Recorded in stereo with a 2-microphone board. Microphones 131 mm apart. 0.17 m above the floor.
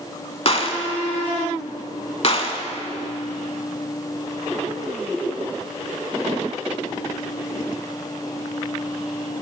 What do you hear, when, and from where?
0.5 s a gunshot: 45° left (ahead or behind), 0.5 m